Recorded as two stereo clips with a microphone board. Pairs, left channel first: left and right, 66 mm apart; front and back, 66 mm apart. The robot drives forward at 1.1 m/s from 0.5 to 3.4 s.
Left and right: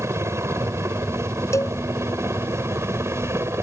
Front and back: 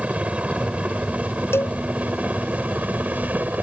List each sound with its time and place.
0.0 s a helicopter: 115° right; by 3.6 s 125° right
1.5 s a cowbell: 50° left